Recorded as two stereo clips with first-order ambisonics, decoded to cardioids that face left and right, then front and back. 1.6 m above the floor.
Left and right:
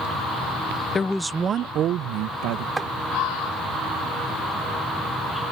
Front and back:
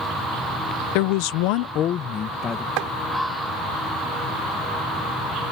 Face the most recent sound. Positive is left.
turn(degrees=-175)